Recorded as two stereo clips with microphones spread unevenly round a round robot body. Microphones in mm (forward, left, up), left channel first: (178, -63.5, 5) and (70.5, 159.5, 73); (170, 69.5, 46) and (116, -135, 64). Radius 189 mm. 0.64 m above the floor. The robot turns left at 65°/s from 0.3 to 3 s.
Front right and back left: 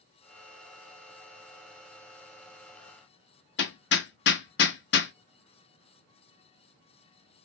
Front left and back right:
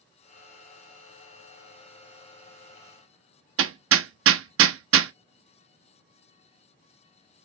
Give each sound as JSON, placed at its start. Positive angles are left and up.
{"t": 3.6, "sound": "hammering", "azimuth_deg": -90, "distance_m": 0.5}